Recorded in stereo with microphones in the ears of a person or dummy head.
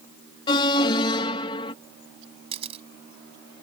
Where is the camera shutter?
30° right (ahead or behind).